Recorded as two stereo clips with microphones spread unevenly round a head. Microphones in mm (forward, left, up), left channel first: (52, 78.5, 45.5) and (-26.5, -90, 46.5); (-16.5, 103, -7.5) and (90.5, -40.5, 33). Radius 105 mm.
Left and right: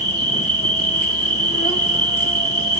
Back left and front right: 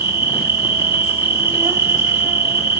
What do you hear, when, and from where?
0.0 s an insect: 15° left, 1.5 m